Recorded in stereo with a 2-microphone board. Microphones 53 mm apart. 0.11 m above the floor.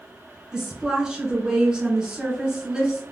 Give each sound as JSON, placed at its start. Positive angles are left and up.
{"t": 0.5, "sound": "a woman speaking", "side_deg": -15, "distance_m": 1.1}